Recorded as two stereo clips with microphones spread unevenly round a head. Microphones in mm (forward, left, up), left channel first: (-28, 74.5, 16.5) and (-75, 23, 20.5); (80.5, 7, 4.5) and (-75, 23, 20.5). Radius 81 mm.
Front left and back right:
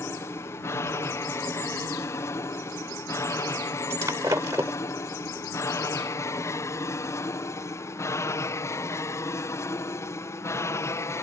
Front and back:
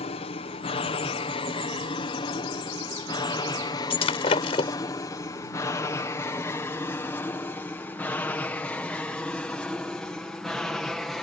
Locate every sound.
0.0 s an aircraft: 15° left; by 11.2 s 80° left
3.9 s breaking glass: 65° right